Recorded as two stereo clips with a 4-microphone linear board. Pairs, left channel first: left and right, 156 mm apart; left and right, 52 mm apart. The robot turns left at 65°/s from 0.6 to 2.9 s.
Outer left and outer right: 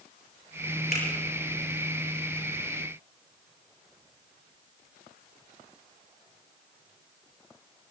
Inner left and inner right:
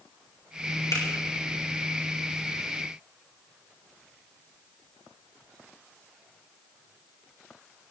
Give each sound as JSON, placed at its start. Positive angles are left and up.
{"t": 0.9, "sound": "a finger snap", "side_deg": 75, "distance_m": 6.0}